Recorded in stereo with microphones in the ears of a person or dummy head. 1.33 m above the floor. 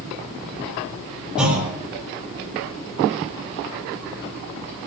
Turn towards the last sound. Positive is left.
turn(degrees=-5)  # may be behind; listen again after turning